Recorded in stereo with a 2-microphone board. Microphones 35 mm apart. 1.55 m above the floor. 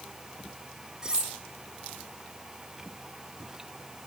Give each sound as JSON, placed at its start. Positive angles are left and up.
{"t": 1.0, "sound": "cutlery clinking", "side_deg": -20, "distance_m": 4.0}